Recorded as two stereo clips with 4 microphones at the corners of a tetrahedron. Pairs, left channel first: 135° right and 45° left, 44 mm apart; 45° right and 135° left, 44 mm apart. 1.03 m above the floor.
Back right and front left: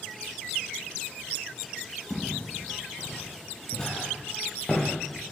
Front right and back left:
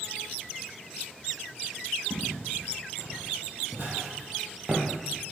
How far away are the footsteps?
About 2.5 m.